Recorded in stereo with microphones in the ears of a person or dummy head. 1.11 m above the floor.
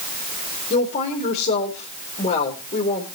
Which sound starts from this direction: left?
A woman speaking, at 0.7 s.